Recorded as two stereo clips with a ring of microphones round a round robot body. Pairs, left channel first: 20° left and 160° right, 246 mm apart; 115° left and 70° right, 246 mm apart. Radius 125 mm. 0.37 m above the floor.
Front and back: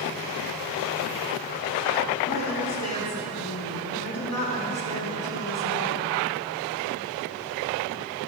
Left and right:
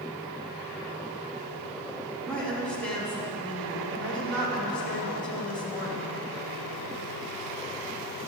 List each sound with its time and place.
2.3 s a woman speaking: 25° left, 3.5 m